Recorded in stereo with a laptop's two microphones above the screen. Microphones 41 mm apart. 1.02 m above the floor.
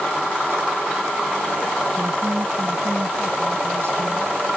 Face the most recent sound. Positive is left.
turn(degrees=-65)  # may be behind; listen again after turning